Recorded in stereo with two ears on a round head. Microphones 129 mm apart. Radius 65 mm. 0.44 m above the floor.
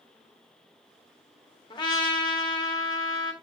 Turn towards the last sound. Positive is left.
turn(degrees=30)  # may be behind; listen again after turning